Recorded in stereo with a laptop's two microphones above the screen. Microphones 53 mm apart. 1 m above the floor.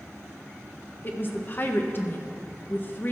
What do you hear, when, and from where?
1.0 s a woman speaking: 40° left (ahead or behind), 0.9 m